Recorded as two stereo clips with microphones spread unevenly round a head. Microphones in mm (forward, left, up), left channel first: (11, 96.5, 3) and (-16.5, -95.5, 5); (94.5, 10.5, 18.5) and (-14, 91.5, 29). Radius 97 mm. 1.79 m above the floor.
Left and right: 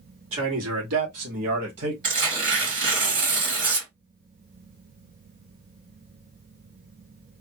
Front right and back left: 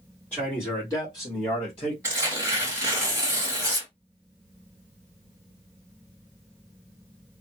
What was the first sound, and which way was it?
A man speaking, 120° right.